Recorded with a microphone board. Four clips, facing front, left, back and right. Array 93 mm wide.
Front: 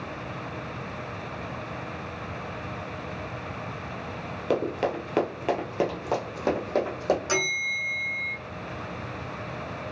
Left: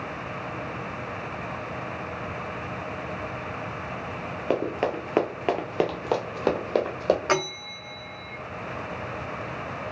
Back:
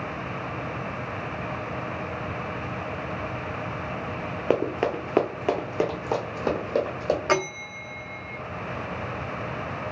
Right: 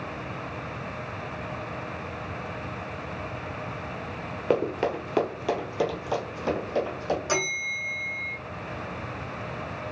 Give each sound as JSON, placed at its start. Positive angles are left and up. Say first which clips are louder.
{"t": 4.5, "sound": "running footsteps", "louder": "right 1 dB, back 2 dB", "azimuth_deg": 175, "distance_m": 0.8}
{"t": 7.3, "sound": "a bell", "louder": "left 2 dB, back 2 dB", "azimuth_deg": 135, "distance_m": 0.5}